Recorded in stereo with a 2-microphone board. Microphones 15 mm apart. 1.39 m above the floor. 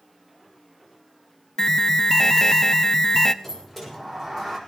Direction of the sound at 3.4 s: 10° left (ahead or behind).